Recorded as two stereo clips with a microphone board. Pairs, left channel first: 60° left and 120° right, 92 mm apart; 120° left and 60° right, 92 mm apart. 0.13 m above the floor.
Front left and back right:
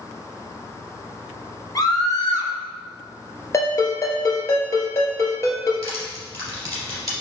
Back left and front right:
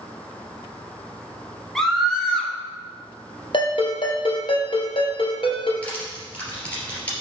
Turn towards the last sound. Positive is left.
turn(degrees=-165)